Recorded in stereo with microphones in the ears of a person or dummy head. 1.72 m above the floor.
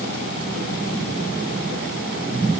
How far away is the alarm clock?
No alarm clock in this recording.